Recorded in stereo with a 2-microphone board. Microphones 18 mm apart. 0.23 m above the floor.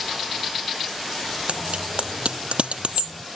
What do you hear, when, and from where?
1.5 s a bicycle bell: 80° right